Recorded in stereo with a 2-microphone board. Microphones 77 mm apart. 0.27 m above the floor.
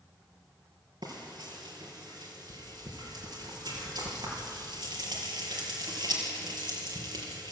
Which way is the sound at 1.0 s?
70° right (ahead or behind).